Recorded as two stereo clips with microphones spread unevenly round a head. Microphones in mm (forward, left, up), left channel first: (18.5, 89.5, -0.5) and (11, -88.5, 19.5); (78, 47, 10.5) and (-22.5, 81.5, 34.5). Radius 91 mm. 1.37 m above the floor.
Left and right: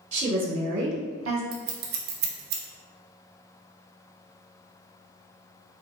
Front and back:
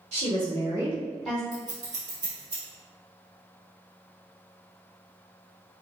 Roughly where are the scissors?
Behind right.